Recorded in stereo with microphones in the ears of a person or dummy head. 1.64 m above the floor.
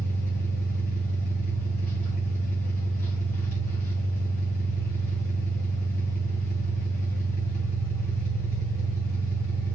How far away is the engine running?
About 3.5 m.